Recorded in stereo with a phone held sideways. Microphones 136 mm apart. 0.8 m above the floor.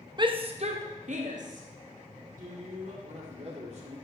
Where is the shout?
35° right (ahead or behind), 0.6 m; by 2.9 s 75° right (ahead or behind), 2 m.